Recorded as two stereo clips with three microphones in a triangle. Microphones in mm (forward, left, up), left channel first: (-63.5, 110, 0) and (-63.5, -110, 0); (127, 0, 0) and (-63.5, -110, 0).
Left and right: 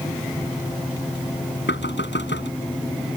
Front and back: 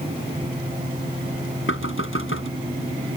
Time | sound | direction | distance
1.7 | knocking | 55° left | ?